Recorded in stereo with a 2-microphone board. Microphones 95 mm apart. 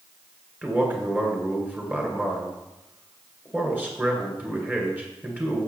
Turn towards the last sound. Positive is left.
turn(degrees=-15)  # may be behind; listen again after turning